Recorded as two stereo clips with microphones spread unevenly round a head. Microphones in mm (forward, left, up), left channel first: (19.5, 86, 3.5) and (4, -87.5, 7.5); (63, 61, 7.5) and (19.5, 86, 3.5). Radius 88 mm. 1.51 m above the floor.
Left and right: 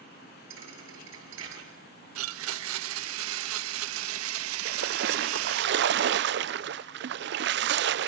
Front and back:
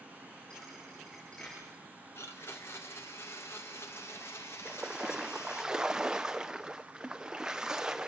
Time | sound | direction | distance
0.5 | a thud | 110° right | 7.5 m
2.1 | a blender | 105° right | 0.7 m
4.7 | a splash | 125° right | 0.5 m